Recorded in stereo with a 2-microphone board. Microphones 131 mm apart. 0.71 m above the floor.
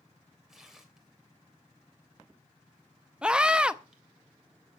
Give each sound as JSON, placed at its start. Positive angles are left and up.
{"t": 0.5, "sound": "tearing paper", "side_deg": -5, "distance_m": 3.0}
{"t": 3.2, "sound": "a scream", "side_deg": -5, "distance_m": 0.7}